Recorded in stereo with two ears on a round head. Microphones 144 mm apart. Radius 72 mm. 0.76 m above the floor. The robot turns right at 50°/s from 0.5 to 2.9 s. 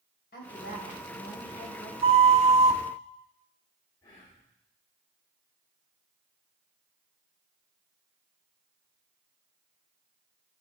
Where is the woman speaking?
70° left, 3.5 m; by 1.9 s 140° left, 3.5 m.